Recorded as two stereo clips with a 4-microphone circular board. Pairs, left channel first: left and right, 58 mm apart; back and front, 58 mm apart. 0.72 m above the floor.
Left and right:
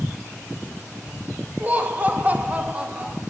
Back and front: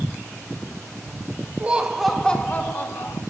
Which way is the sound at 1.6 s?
50° right.